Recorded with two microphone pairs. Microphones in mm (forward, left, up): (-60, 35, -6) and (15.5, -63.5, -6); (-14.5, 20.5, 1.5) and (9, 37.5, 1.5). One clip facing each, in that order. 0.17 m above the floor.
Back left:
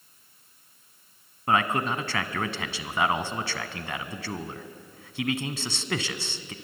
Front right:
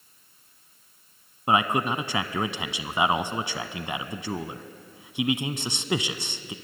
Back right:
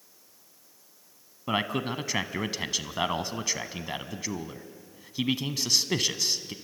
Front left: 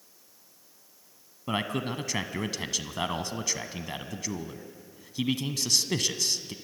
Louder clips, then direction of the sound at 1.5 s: Front right 1 dB, back right 2 dB; 90° right.